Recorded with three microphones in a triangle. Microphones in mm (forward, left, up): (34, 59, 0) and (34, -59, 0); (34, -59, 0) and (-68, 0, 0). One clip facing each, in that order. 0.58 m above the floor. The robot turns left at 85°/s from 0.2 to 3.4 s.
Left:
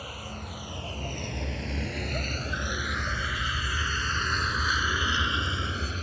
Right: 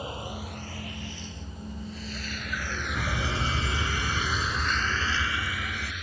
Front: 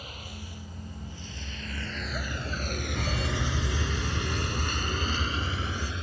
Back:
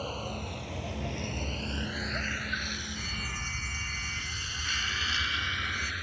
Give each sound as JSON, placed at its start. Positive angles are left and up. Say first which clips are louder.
{"t": 0.0, "sound": "a vehicle", "louder": "right 4 dB, back 8 dB", "azimuth_deg": -155}
{"t": 3.0, "sound": "a fire alarm", "louder": "right 3 dB, front 9 dB", "azimuth_deg": -65}